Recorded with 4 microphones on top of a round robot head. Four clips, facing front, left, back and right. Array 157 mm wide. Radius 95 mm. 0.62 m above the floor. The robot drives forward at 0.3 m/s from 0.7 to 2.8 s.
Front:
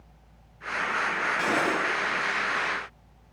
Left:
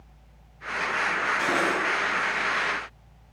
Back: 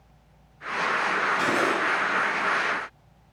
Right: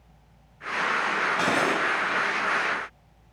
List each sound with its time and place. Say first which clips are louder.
1.4 s cutlery clinking: right 1 dB, front 1 dB; 95° right, 3 m; by 1.8 s 100° right, 3 m